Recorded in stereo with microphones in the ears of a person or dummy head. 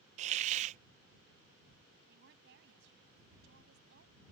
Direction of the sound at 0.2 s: 45° right (ahead or behind).